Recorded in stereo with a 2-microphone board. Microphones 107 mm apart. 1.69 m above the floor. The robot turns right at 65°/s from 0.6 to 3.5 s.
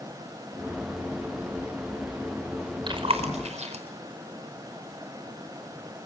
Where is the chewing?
45° right (ahead or behind), 4.5 m; by 3.8 s 80° right, 4.5 m.